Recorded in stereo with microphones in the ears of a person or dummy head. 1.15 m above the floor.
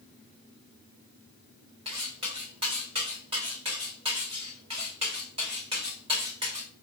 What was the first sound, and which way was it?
Cutlery clinking, 30° right (ahead or behind).